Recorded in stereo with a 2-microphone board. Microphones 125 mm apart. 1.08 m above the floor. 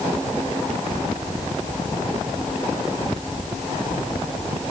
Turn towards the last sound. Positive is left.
No sound to turn to.